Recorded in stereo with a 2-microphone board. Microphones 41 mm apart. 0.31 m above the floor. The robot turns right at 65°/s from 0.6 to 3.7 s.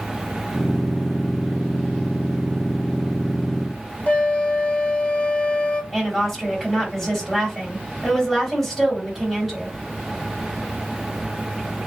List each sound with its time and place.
4.1 s a flute: 35° left (ahead or behind), 0.7 m
5.9 s a woman speaking: 5° left (ahead or behind), 2.5 m